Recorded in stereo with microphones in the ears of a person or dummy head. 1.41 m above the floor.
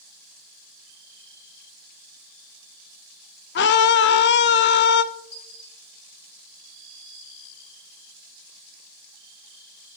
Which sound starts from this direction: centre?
A dropped coin, at 5.3 s.